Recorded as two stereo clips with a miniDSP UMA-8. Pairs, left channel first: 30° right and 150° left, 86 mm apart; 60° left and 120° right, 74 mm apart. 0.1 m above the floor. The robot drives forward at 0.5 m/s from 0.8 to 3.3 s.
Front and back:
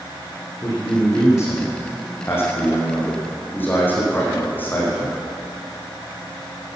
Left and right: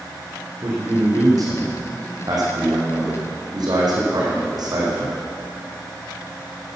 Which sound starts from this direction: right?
A man speaking, at 0.6 s.